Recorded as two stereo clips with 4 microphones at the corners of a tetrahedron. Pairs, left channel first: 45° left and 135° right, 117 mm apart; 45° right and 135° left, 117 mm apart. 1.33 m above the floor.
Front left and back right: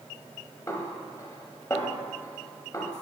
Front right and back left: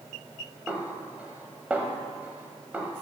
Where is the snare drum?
70° left, 1.2 m.